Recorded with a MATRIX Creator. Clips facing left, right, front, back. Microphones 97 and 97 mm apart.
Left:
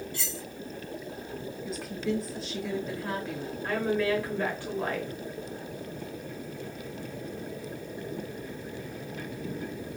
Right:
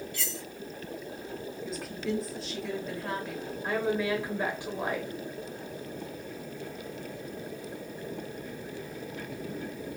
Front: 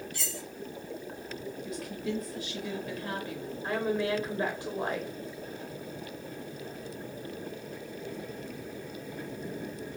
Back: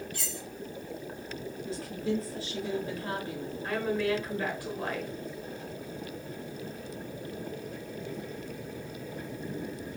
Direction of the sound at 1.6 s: Straight behind.